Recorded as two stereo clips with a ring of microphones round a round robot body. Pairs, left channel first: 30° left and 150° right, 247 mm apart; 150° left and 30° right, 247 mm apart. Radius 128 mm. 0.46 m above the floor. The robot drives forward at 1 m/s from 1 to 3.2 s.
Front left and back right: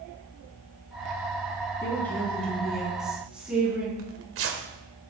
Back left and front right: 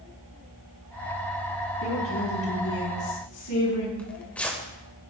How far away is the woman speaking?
About 5 m.